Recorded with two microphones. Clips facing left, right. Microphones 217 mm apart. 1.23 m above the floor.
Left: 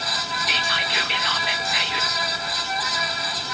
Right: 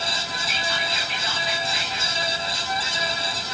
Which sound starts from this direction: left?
Whispering, at 0.5 s.